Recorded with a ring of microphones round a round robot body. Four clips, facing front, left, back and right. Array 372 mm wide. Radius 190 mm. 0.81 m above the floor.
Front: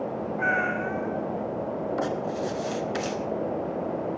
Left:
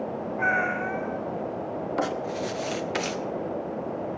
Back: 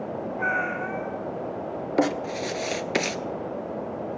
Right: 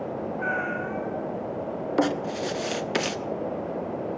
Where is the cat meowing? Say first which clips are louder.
Left 5 dB, front 1 dB; 50° left, 3 m.